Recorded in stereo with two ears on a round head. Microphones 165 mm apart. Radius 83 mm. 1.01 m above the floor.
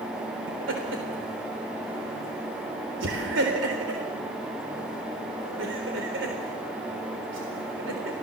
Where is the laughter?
75° right (ahead or behind), 4 m.